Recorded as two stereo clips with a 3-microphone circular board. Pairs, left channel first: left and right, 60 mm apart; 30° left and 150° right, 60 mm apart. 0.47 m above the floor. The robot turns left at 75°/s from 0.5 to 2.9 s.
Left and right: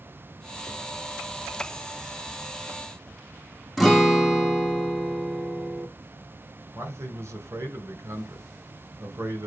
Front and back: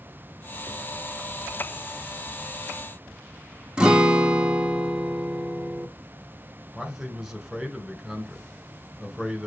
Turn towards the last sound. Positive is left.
turn(degrees=-65)